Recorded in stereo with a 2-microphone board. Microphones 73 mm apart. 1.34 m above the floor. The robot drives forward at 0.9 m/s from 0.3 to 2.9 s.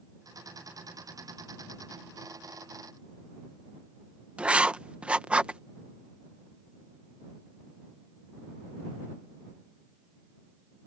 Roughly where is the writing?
Centre.